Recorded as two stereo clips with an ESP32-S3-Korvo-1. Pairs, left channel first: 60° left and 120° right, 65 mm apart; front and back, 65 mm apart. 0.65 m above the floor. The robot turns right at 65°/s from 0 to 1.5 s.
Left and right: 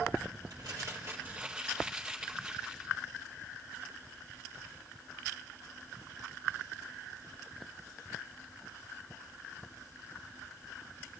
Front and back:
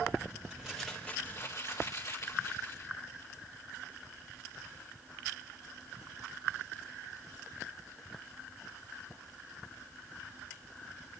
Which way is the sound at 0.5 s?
105° right.